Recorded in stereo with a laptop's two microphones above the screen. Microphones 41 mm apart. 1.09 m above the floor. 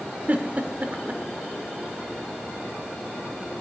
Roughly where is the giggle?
Right.